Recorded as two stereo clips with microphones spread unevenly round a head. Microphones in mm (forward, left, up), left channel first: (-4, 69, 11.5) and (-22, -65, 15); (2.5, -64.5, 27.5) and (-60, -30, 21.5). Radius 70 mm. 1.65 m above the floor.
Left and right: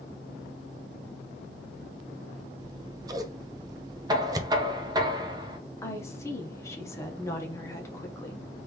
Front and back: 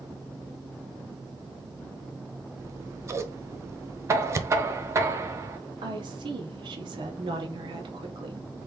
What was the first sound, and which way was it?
Scissors, 160° right.